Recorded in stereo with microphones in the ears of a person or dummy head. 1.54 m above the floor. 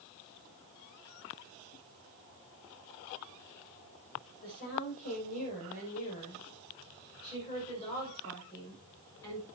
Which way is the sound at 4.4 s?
50° left (ahead or behind).